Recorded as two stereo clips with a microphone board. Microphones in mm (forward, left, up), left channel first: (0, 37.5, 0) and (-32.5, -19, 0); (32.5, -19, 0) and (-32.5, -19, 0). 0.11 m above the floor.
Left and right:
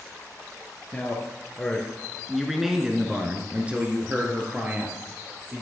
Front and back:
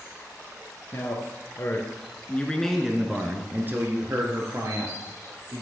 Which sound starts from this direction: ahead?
A man speaking, at 0.9 s.